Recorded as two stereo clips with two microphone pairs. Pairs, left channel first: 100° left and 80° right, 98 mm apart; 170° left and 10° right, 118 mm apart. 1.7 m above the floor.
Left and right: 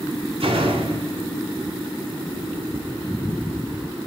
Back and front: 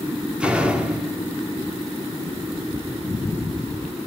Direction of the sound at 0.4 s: 90° right.